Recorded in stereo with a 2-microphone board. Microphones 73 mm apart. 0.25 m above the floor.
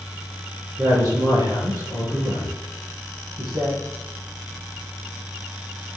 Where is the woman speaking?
65° right (ahead or behind), 5 m.